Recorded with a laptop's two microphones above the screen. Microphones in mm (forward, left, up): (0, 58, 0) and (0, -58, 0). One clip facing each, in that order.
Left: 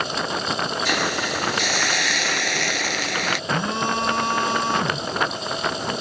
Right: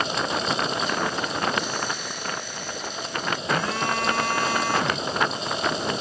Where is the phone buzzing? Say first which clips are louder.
Left 1 dB; 25° left (ahead or behind).